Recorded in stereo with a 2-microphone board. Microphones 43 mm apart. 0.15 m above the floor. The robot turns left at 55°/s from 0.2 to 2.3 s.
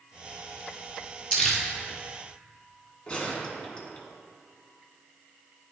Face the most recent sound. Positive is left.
turn(degrees=20)  # may be behind; listen again after turning